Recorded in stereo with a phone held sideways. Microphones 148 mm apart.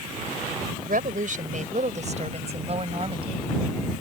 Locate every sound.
0.8 s a woman speaking: 70° right (ahead or behind); by 3.5 s 35° right (ahead or behind)